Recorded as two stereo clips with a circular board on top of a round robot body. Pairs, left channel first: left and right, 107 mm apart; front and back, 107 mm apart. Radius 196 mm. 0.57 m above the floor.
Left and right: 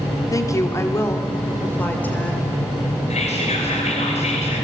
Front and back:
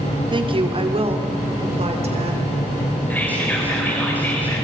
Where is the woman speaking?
145° left, 2.5 m; by 2.5 s 170° left, 4 m.